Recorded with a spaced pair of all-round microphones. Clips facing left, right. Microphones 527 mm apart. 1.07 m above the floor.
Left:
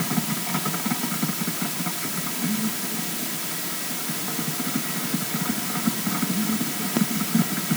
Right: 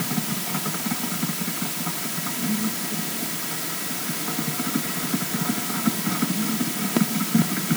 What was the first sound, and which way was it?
Only background noise.